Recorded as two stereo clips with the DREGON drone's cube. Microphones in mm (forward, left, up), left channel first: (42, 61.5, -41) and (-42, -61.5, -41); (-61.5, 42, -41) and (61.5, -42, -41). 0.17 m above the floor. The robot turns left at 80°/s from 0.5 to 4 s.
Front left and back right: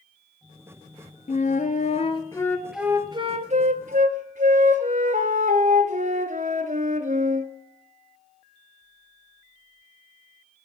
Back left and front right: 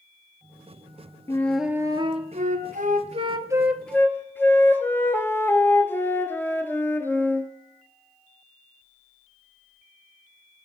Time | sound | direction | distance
1.3 | a flute | 75° left | 0.8 m